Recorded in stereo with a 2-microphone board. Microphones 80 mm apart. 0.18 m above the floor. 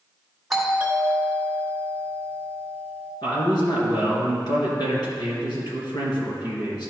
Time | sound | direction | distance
0.5 | a doorbell | centre (ahead or behind) | 1.6 m
3.2 | a man speaking | 60° left (ahead or behind) | 2.5 m